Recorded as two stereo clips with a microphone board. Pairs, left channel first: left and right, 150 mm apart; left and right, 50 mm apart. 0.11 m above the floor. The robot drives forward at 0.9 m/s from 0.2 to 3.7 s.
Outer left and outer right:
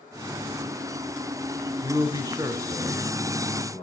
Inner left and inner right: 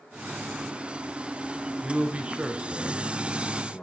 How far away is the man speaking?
About 1.2 m.